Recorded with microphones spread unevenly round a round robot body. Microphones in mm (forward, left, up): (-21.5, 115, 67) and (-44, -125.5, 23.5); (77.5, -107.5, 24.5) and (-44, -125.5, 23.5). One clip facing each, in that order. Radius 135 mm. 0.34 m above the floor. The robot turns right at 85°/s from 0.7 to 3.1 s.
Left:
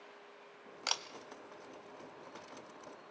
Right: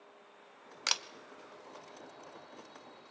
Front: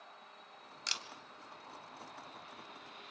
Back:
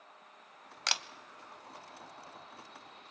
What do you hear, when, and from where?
0.9 s a camera shutter: 155° right, 0.9 m; by 1.0 s 140° right, 0.9 m